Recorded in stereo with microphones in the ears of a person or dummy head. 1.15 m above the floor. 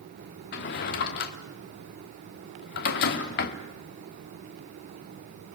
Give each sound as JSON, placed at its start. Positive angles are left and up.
{"t": 0.5, "sound": "a drawer", "side_deg": 55, "distance_m": 1.2}